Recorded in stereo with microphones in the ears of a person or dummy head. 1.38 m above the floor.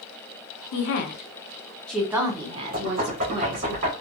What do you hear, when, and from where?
0.7 s a woman speaking: 60° left (ahead or behind), 0.7 m; by 3.7 s 50° right (ahead or behind), 1.1 m
2.7 s knocking: 40° right (ahead or behind), 1.6 m